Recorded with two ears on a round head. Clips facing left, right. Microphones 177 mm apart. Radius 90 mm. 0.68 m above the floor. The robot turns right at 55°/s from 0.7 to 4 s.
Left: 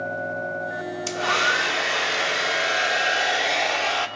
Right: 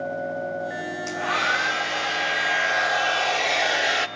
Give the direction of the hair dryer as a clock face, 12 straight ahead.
11 o'clock.